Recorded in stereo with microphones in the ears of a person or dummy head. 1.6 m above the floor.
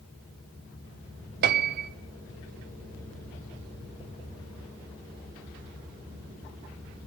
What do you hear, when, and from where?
1.4 s a piano: 60° right (ahead or behind), 0.5 m